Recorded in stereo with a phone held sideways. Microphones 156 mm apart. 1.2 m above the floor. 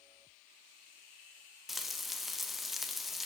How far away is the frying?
About 0.5 m.